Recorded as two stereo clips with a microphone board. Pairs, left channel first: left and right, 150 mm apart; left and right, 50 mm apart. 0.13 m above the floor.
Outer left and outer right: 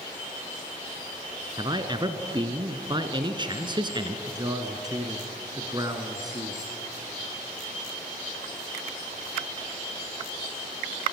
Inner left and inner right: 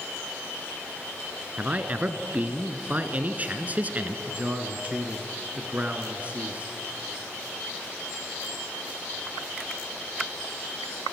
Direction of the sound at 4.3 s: 25° right (ahead or behind).